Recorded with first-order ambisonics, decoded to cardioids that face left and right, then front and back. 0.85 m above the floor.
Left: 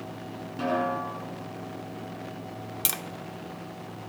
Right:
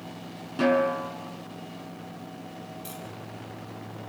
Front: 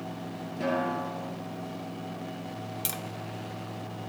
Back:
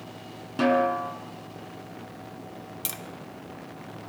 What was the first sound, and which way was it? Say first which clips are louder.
A snare drum: right 4 dB, back 7 dB; 160° right.